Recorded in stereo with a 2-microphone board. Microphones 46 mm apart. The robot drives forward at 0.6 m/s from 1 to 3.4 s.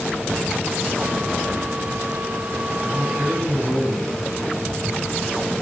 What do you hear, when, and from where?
2.8 s a man speaking: 50° right (ahead or behind), 4.5 m